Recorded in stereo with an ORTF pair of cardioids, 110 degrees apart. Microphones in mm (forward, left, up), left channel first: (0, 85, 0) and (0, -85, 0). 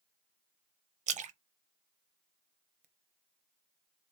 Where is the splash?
45° right, 0.6 m.